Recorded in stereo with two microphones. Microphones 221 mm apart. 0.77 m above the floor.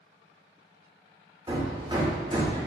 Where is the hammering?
20° right (ahead or behind), 0.7 m.